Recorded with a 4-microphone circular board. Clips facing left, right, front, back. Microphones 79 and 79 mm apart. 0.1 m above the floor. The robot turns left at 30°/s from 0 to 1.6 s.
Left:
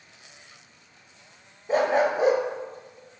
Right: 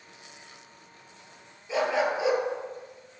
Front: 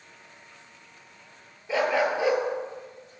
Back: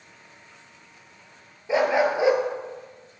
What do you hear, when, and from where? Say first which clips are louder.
1.7 s a dog barking: left 4 dB, back 3 dB; 115° left, 0.9 m